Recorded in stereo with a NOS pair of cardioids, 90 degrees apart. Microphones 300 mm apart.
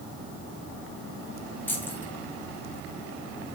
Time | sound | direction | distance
1.7 | keys jangling | 5° left | 4.5 m